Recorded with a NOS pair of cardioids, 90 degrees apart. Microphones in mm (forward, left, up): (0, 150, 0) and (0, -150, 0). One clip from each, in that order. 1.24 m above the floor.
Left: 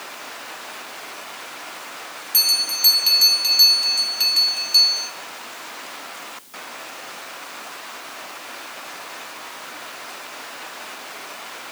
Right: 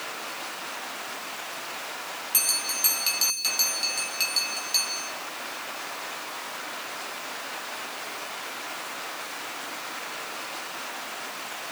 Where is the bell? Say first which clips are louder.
Left 9 dB; 10° left, 1.9 m.